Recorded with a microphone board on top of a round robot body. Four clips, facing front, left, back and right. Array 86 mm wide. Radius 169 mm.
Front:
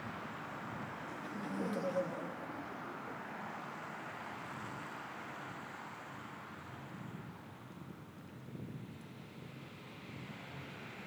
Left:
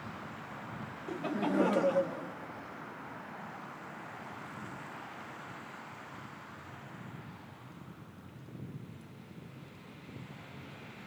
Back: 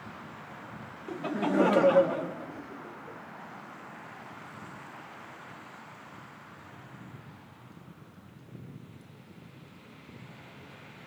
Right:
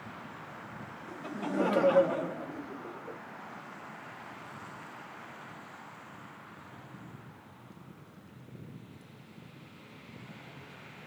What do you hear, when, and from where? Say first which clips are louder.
1.1 s laughter: left 4 dB, back 17 dB; 150° left; by 3.2 s 95° right